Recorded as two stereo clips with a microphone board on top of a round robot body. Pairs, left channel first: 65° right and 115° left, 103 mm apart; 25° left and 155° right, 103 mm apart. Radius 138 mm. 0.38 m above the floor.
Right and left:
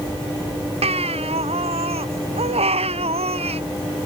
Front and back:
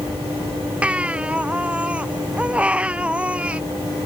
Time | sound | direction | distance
0.8 | a baby crying | 125° left | ?